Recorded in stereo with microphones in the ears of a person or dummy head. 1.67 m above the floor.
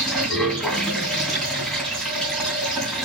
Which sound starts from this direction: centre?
Running water, at 0.0 s.